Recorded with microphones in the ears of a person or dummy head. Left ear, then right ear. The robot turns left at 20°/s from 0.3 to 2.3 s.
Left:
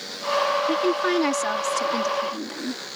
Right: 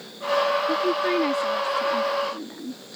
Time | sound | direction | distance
0.7 | a woman speaking | 35° left (ahead or behind) | ?